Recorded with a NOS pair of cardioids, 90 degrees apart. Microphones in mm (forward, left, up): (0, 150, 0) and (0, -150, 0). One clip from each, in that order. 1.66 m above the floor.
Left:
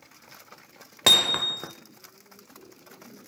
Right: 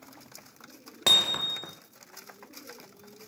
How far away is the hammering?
About 1.3 m.